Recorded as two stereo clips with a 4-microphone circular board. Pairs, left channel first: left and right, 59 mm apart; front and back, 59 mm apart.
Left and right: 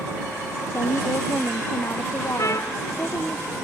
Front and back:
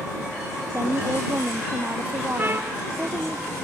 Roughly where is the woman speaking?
Behind left.